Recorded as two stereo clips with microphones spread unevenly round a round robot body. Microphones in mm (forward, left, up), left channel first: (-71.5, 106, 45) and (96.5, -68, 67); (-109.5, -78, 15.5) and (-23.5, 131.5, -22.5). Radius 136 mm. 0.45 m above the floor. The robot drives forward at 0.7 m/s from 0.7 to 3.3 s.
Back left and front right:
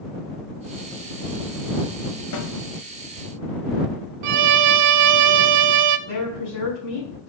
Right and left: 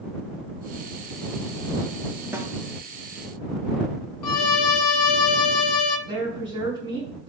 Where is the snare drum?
145° left, 1.1 m; by 2.5 s 150° left, 1.2 m.